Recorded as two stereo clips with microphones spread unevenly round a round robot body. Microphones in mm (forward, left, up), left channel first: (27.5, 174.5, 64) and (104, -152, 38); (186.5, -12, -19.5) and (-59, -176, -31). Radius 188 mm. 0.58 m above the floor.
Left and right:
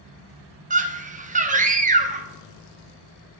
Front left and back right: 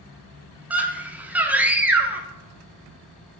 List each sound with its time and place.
0.7 s a scream: 70° right, 1.2 m